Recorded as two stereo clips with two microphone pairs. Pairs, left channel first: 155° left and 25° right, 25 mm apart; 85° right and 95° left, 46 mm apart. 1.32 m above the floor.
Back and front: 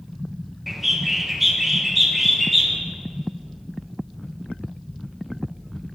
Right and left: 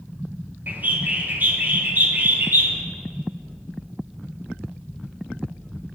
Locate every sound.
0.7 s a bird: 60° left, 0.5 m